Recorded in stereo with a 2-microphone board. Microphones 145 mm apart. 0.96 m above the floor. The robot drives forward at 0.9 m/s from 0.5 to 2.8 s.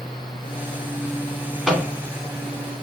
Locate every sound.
1.7 s a microwave: 5° right (ahead or behind), 3 m